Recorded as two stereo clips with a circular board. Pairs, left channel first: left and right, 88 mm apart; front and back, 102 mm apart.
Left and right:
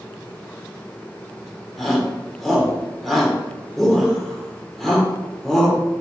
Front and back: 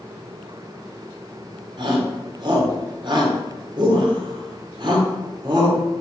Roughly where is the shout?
Behind.